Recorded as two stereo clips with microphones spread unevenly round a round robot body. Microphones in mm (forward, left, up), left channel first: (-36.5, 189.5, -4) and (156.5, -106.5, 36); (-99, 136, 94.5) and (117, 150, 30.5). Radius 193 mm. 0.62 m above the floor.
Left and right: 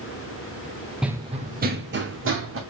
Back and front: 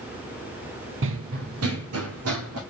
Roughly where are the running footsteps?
Ahead left.